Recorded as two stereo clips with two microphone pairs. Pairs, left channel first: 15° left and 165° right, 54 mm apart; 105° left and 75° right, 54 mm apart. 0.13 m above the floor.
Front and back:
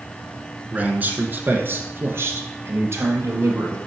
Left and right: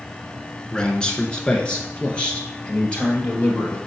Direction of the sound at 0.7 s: 170° left.